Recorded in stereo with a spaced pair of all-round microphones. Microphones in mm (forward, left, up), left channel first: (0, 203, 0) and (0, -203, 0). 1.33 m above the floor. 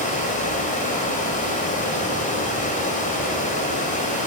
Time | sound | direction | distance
0.0 | running water | 20° left (ahead or behind) | 4.5 m